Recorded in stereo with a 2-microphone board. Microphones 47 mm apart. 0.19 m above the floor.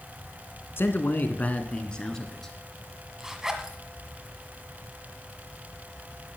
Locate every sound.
0.8 s a man speaking: 55° left (ahead or behind), 1.7 m; by 2.5 s 5° left (ahead or behind), 2.5 m
3.2 s a zipper: 15° right (ahead or behind), 1.8 m